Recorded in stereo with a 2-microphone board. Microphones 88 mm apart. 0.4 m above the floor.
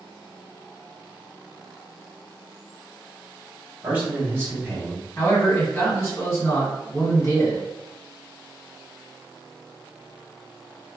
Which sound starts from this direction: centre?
A man speaking, at 3.8 s.